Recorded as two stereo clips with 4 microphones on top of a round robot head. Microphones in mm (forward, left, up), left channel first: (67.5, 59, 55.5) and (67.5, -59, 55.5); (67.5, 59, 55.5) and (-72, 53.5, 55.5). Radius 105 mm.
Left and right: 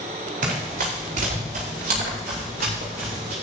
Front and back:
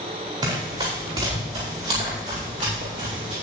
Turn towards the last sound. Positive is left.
turn(degrees=-120)